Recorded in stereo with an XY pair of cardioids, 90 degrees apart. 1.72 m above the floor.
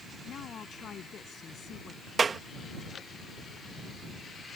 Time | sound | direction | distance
0.2 | a woman speaking | 60° left | ?
2.2 | a clap | 45° right | ?